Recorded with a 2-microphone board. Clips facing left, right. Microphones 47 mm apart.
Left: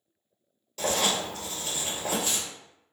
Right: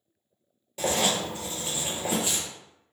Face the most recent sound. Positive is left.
turn(degrees=-20)  # may be behind; listen again after turning